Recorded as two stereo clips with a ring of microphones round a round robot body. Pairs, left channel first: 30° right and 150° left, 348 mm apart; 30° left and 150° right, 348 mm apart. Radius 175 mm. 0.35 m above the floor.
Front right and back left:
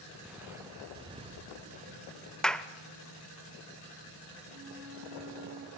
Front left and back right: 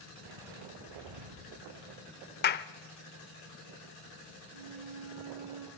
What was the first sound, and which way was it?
Footsteps, 120° right.